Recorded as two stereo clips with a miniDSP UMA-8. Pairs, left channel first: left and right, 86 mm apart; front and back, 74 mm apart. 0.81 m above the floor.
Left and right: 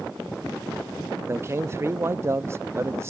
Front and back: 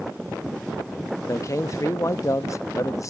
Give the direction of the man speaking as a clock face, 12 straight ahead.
1 o'clock.